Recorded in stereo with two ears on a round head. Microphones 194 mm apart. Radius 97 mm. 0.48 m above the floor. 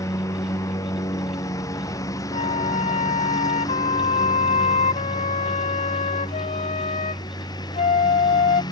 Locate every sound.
0.0 s a lawn mower: 15° left (ahead or behind); by 8.7 s 20° left (ahead or behind)
2.3 s a flute: 35° left (ahead or behind)